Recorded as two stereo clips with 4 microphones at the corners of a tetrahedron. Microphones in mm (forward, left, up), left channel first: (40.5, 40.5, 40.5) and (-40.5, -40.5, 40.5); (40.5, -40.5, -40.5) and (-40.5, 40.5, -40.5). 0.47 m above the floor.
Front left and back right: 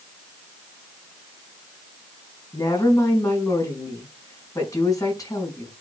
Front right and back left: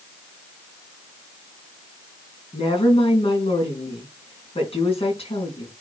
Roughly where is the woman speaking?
Ahead.